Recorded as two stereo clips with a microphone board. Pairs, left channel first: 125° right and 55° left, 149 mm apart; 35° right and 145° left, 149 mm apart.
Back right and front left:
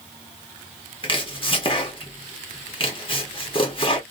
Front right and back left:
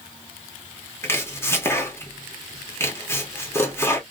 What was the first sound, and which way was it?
Chopping, 100° right.